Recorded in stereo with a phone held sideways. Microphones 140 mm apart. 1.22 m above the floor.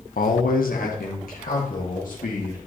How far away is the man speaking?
About 0.7 m.